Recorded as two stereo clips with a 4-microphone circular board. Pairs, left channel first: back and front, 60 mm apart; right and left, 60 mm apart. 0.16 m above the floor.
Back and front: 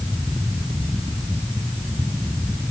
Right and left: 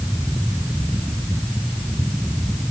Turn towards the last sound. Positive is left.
No sound to turn to.